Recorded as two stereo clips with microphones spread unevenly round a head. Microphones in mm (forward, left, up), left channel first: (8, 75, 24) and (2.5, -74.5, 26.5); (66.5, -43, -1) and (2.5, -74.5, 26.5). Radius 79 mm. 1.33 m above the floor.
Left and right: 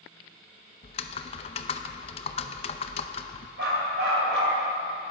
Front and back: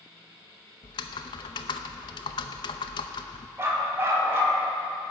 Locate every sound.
0.8 s typing on a keyboard: 55° left, 0.6 m
3.6 s a dog barking: 110° right, 3.5 m